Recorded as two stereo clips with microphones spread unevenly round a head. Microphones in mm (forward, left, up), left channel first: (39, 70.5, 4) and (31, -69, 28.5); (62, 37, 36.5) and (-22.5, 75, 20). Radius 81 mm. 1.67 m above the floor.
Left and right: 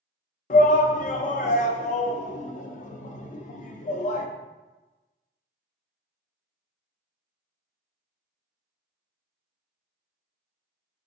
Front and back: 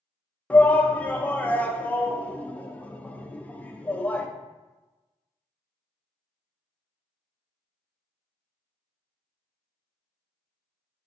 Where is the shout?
50° left, 0.6 m.